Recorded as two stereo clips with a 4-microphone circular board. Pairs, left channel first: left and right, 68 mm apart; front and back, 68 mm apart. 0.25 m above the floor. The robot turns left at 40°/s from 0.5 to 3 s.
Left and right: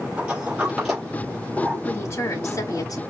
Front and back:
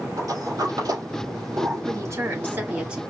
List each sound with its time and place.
0.2 s a sliding door: 165° right, 3 m; by 2.9 s 105° left, 3 m
1.9 s a woman speaking: 145° left, 4 m; by 3.0 s 100° left, 4 m